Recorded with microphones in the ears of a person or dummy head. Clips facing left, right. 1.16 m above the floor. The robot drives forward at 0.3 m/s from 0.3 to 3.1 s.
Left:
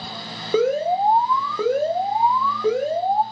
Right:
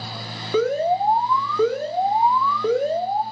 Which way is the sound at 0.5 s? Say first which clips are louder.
Left 1 dB; 10° left (ahead or behind).